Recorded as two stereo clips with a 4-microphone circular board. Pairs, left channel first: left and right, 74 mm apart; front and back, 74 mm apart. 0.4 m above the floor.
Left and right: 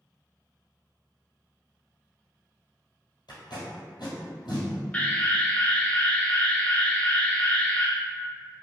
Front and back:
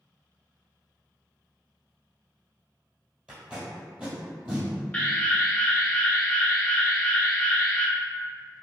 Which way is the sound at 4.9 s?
50° left.